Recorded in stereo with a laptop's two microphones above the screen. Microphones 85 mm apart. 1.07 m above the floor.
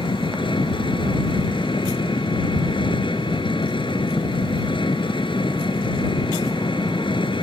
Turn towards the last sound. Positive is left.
turn(degrees=70)  # may be behind; listen again after turning